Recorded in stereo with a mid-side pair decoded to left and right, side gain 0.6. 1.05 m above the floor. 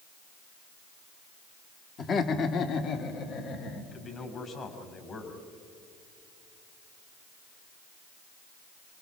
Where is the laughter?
40° left, 2 m; by 3.8 s 70° left, 3 m.